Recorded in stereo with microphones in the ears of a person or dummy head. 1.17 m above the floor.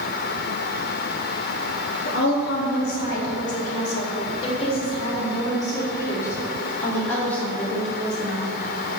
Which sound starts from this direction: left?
A woman speaking, at 2.0 s.